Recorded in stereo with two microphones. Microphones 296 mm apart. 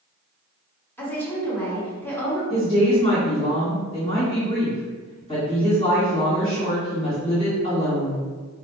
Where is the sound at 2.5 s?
25° left (ahead or behind), 1.8 m.